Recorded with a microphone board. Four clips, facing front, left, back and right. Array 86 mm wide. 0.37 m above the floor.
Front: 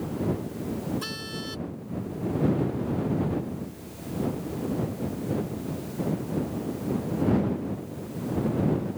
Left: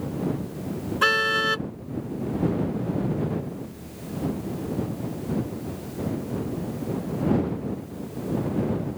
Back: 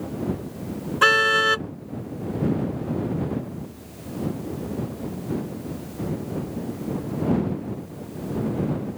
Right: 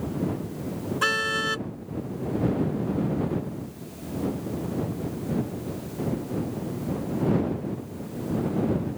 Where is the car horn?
170° left.